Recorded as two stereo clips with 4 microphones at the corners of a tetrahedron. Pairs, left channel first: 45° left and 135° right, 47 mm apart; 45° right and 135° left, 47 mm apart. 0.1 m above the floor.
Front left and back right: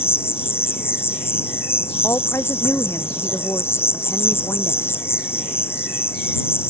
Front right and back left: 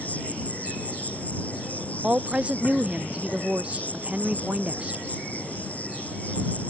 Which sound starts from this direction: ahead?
An insect, at 0.0 s.